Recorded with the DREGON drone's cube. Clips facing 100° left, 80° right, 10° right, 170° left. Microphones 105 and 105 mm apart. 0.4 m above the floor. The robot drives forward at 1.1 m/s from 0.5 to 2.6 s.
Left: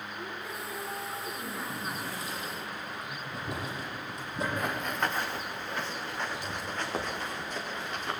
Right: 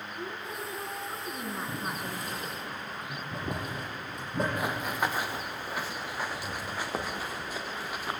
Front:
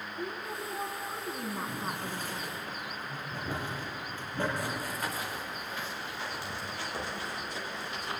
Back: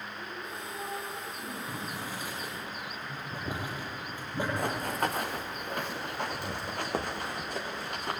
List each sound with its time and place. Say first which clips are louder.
0.2 s a woman speaking: right 3 dB, front 6 dB; 15° right, 6 m; by 2.6 s 25° right, 4 m
1.7 s boiling: right 1 dB, front 1 dB; 110° right, 7 m; by 4.5 s 115° right, 7.5 m
4.6 s running footsteps: right 1 dB, back 4 dB; 160° right, 1.8 m